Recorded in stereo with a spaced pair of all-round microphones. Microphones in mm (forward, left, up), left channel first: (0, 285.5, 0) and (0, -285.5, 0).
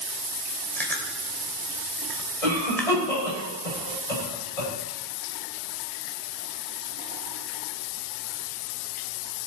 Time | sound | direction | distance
0.8 | chewing | 5° left (ahead or behind) | 2 m
2.4 | a cough | 85° left | 6 m